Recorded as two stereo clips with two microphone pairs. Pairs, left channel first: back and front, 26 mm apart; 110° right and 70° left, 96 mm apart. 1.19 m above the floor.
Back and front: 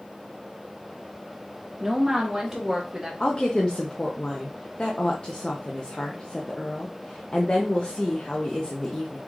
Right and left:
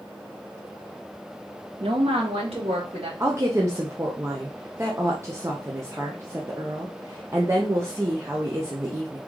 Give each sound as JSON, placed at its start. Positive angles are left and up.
{"t": 1.8, "sound": "a woman speaking", "azimuth_deg": 80, "distance_m": 0.9}
{"t": 3.2, "sound": "a woman speaking", "azimuth_deg": 125, "distance_m": 0.8}